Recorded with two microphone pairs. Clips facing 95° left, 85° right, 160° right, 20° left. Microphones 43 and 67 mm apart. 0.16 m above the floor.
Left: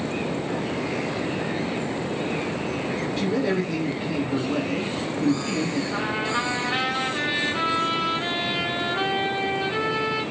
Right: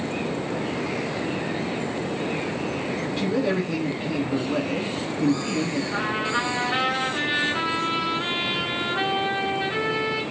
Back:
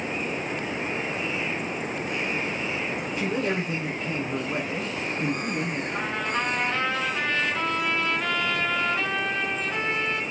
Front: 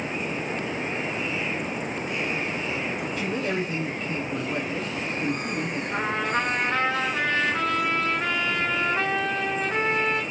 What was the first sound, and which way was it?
A man speaking, 150° right.